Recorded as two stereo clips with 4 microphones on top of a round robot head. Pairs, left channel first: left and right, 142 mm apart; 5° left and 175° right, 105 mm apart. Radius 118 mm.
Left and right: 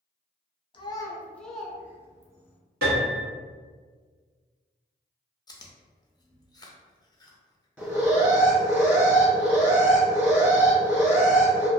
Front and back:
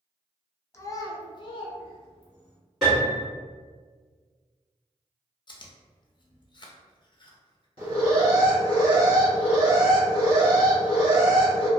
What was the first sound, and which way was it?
A child speaking, 55° left.